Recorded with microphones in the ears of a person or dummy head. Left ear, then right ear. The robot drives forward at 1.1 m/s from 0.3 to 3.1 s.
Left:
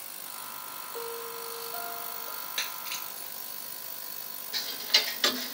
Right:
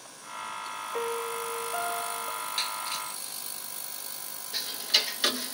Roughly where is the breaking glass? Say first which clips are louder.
Right 1 dB; left.